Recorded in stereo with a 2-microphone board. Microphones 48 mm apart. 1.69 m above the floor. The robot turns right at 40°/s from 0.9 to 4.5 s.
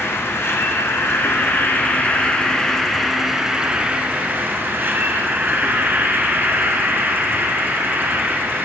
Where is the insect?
95° left, 1.3 m; by 8.7 s 125° right, 1.3 m.